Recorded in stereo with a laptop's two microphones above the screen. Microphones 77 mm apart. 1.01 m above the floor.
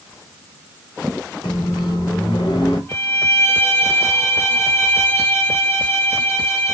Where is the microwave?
70° left (ahead or behind), 2.5 m.